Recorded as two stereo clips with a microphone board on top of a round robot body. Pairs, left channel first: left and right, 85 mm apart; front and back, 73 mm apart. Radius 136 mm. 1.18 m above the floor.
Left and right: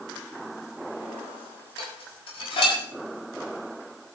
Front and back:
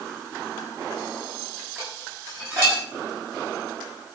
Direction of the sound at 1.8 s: 120° left.